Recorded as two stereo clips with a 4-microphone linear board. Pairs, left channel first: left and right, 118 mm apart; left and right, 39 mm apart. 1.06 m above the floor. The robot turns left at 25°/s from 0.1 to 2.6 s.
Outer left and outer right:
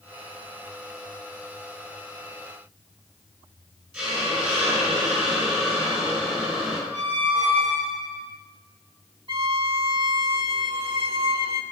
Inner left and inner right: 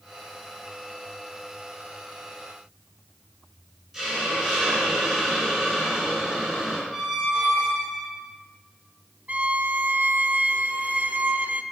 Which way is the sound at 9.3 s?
50° right (ahead or behind).